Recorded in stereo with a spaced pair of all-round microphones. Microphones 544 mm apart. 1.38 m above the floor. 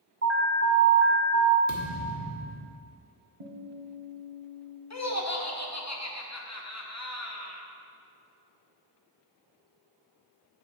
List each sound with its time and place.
0.2 s an alarm: 25° right (ahead or behind), 0.7 m
1.7 s a thud: 30° right (ahead or behind), 1.4 m
3.4 s a guitar: 65° right (ahead or behind), 1.0 m
4.9 s laughter: 30° left (ahead or behind), 1.0 m